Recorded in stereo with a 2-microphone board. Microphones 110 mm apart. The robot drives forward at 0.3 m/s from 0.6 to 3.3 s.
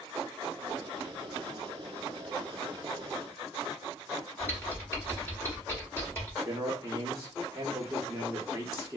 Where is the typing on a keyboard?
20° left (ahead or behind), 1.4 m.